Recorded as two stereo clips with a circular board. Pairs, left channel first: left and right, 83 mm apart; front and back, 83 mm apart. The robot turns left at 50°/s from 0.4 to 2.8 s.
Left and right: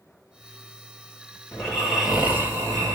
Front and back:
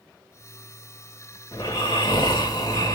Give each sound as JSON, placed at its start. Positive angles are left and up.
{"t": 1.5, "sound": "snoring", "azimuth_deg": 15, "distance_m": 2.0}